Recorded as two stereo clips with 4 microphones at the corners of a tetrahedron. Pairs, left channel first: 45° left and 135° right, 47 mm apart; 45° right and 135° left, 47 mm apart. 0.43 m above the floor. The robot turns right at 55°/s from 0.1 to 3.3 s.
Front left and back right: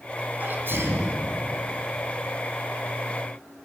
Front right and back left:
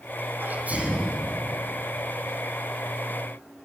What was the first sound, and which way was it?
A sneeze, 175° left.